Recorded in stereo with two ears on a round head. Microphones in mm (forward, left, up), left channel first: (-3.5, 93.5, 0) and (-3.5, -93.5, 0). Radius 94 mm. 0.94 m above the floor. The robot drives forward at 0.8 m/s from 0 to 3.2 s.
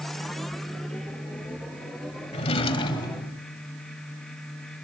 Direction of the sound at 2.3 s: 30° left (ahead or behind).